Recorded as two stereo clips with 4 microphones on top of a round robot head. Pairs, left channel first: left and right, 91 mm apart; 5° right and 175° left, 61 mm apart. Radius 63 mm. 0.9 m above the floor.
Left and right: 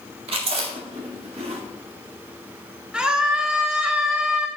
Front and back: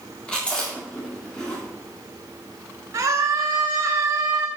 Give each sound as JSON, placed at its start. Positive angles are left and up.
{"t": 0.3, "sound": "chewing", "azimuth_deg": -80, "distance_m": 2.0}
{"t": 2.9, "sound": "a scream", "azimuth_deg": -170, "distance_m": 2.5}